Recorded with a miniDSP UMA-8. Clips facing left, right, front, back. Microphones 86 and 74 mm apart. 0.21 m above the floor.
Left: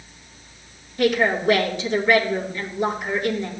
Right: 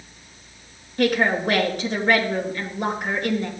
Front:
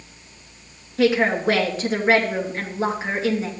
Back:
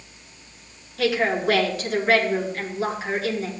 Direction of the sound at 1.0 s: 60° right.